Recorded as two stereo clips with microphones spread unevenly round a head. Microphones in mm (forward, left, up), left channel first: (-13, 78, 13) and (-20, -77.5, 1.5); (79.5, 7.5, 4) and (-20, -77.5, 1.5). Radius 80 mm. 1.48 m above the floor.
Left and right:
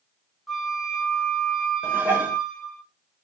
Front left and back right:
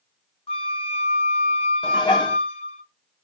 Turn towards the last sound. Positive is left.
turn(degrees=-15)